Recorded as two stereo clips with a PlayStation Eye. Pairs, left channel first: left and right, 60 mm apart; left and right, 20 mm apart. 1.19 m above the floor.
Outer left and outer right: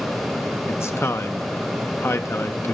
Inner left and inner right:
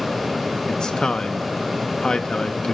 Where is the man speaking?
45° left (ahead or behind), 1.3 m.